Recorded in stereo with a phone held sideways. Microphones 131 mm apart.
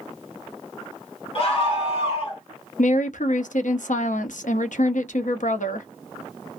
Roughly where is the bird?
I don't hear a bird.